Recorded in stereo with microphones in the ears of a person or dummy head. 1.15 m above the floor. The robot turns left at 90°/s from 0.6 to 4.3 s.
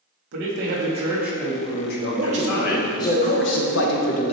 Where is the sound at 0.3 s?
115° right, 1.7 m; by 3.2 s 15° left, 1.7 m.